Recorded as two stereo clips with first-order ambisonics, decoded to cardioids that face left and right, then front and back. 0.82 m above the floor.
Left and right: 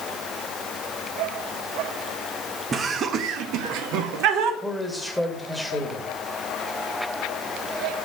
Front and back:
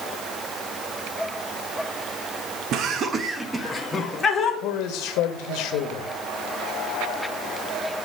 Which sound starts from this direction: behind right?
Laughter, at 2.7 s.